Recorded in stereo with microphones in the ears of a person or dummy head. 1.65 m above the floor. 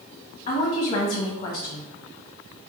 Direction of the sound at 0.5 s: 40° left (ahead or behind).